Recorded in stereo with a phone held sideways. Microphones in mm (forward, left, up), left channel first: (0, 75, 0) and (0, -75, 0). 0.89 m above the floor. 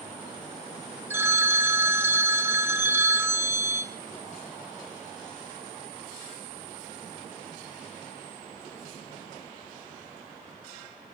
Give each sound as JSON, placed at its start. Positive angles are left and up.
{"t": 1.1, "sound": "a phone ringing", "side_deg": -15, "distance_m": 0.8}